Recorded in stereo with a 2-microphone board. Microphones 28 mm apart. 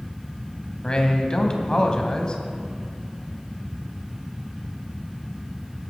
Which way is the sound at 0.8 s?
30° left (ahead or behind).